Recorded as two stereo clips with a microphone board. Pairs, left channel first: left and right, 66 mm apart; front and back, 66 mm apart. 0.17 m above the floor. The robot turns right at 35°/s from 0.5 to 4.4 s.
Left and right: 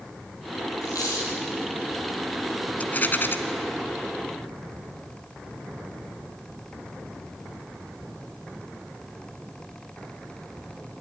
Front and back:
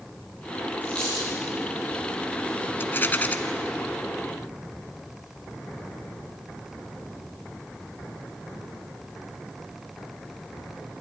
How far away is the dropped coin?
About 8 m.